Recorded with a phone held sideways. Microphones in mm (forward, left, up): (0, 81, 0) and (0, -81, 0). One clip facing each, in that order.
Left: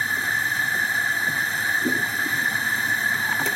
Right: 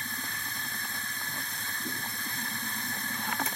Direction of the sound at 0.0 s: 85° left.